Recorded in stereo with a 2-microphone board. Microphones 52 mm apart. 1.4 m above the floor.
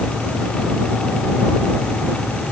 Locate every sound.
Only background noise.